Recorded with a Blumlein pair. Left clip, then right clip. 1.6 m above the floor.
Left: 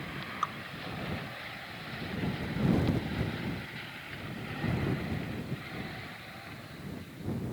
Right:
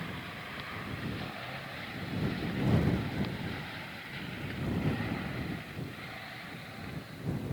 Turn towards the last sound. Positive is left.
turn(degrees=50)